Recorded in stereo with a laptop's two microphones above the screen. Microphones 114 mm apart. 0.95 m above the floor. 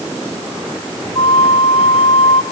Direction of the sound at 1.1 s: 55° left (ahead or behind).